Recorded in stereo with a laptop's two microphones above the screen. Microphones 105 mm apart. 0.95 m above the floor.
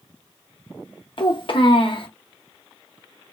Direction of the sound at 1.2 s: 55° left (ahead or behind).